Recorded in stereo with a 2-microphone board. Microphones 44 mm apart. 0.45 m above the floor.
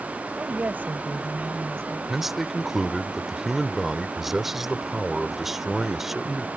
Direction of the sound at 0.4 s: 40° right (ahead or behind).